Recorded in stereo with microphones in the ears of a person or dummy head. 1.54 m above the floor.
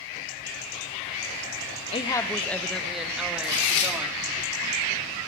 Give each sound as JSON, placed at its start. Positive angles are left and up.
{"t": 1.9, "sound": "a woman speaking", "side_deg": 25, "distance_m": 0.8}
{"t": 3.4, "sound": "tearing paper", "side_deg": 80, "distance_m": 5.5}